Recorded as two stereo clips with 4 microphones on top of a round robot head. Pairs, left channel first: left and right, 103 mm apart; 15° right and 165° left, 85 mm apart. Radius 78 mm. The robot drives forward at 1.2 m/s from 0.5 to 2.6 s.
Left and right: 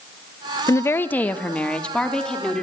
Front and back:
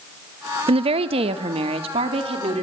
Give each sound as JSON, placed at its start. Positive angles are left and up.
{"t": 0.7, "sound": "a woman speaking", "azimuth_deg": 150, "distance_m": 0.6}